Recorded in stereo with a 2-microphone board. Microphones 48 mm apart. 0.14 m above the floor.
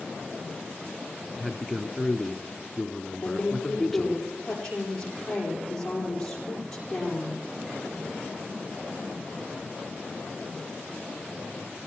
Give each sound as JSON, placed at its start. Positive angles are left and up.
{"t": 1.4, "sound": "a man speaking", "side_deg": 5, "distance_m": 1.2}
{"t": 3.2, "sound": "a woman speaking", "side_deg": 10, "distance_m": 8.0}